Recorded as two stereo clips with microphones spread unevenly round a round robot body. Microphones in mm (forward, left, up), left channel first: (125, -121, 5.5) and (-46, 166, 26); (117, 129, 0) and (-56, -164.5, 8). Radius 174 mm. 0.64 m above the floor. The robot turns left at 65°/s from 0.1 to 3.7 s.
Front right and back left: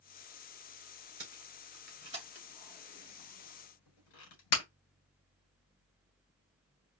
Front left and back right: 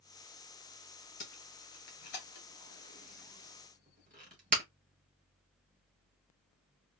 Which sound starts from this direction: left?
Tape being pulled, at 1.2 s.